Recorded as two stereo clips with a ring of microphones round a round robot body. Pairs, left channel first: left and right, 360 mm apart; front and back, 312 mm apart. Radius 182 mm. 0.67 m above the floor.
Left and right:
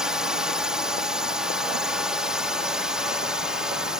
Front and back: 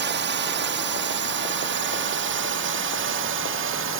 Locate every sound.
0.0 s a drone: 175° right